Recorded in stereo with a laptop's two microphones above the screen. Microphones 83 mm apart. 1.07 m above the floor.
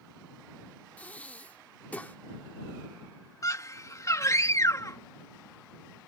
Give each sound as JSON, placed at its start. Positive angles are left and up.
{"t": 1.0, "sound": "breathing", "side_deg": 20}
{"t": 3.4, "sound": "a scream", "side_deg": 40}